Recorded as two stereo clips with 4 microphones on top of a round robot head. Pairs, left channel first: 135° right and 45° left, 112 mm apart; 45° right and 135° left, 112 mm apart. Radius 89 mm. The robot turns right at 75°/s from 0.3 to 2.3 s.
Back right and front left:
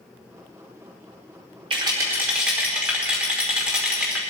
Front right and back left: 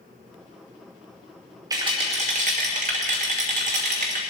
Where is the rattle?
80° left, 1.2 m; by 4.2 s 125° left, 1.2 m.